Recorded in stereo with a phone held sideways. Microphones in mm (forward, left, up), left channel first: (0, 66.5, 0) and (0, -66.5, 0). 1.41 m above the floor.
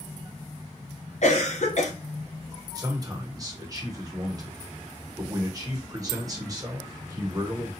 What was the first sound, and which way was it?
A cough, 60° left (ahead or behind).